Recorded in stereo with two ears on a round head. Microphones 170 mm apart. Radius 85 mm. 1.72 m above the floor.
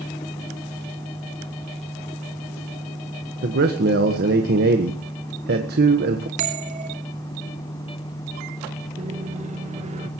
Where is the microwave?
35° right (ahead or behind), 1.6 m.